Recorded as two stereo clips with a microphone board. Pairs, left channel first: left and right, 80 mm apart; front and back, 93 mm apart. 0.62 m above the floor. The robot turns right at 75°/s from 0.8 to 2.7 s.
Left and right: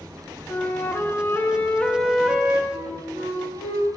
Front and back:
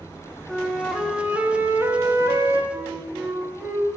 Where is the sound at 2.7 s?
105° right, 2.5 m.